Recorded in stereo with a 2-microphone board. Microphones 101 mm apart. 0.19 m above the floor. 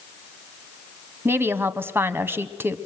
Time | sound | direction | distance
1.2 | a woman speaking | 25° right (ahead or behind) | 1.1 m